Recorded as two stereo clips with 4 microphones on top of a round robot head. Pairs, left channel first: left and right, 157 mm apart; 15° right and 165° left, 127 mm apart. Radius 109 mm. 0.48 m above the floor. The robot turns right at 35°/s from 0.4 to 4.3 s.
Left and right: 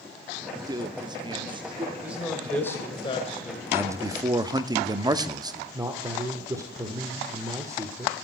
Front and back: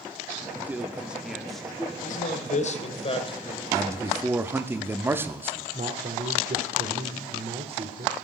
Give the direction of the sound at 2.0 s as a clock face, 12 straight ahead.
12 o'clock.